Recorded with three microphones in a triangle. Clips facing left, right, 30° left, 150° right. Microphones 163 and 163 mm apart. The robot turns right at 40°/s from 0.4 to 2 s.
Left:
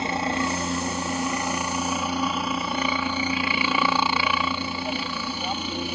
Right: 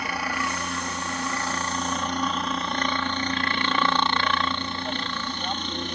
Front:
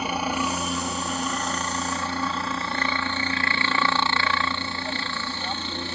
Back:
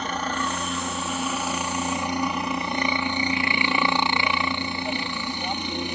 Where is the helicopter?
95° left; by 6.0 s 160° left.